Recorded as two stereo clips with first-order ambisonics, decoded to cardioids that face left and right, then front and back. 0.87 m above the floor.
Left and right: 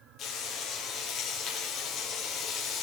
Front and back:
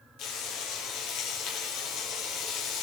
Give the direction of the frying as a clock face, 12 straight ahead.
11 o'clock.